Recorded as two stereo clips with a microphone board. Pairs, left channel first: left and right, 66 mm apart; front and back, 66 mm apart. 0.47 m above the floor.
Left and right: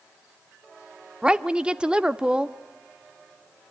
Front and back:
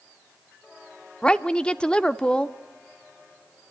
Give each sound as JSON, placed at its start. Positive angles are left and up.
{"t": 1.2, "sound": "a woman speaking", "azimuth_deg": -50, "distance_m": 0.7}